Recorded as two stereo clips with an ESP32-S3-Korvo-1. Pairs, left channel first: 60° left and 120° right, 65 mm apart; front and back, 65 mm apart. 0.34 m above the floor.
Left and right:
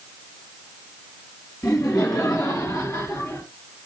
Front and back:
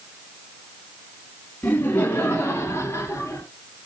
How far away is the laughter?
About 2.5 m.